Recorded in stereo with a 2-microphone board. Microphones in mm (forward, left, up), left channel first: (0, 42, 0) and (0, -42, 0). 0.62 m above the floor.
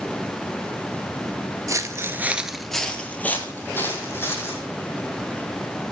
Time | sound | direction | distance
1.7 | footsteps | 40° right (ahead or behind) | 0.7 m